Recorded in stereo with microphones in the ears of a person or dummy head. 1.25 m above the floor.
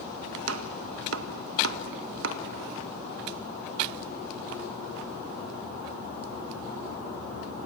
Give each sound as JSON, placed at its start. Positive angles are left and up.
{"t": 0.5, "sound": "chopping", "side_deg": -75, "distance_m": 1.6}